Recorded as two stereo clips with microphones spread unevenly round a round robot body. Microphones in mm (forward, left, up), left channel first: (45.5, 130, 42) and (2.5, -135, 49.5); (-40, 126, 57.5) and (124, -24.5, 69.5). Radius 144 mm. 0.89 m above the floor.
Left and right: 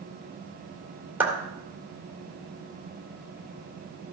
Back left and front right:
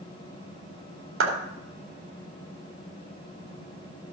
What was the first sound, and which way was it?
A clap, 15° right.